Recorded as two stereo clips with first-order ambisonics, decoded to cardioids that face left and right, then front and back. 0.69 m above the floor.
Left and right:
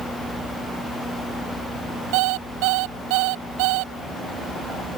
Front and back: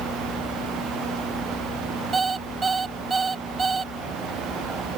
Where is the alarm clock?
105° right.